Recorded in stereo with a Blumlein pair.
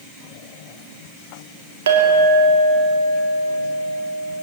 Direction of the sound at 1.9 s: 60° right.